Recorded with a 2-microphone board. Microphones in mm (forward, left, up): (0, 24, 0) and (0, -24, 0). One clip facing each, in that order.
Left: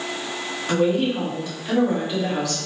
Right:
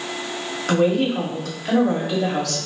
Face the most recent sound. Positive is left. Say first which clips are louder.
# right 2 dB
turn(degrees=-65)  # may be behind; listen again after turning